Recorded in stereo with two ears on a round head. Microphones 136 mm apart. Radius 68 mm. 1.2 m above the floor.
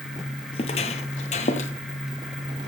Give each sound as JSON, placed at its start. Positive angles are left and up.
{"t": 0.5, "sound": "footsteps", "side_deg": 40, "distance_m": 1.4}